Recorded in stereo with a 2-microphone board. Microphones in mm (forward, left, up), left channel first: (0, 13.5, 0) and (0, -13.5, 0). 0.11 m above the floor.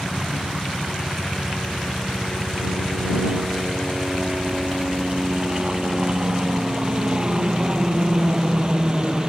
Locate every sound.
0.0 s a helicopter: 25° right (ahead or behind)